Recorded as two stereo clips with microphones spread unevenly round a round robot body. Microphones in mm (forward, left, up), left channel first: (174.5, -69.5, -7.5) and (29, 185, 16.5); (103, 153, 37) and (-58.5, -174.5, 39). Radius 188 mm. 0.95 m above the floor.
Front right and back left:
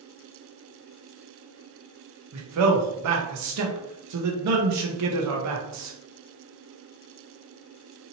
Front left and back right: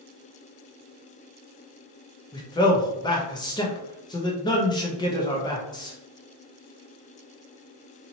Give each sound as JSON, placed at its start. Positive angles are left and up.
{"t": 2.3, "sound": "a man speaking", "azimuth_deg": 140, "distance_m": 0.6}